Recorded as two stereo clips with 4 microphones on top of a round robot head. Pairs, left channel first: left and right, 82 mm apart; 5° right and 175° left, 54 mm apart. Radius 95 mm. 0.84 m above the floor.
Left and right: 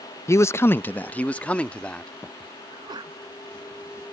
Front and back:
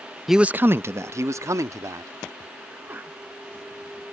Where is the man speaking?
90° left; by 2.1 s 170° left.